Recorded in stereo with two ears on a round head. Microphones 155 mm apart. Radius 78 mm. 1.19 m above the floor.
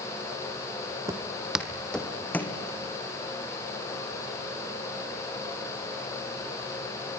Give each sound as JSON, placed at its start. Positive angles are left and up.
{"t": 1.1, "sound": "footsteps", "side_deg": -20, "distance_m": 1.8}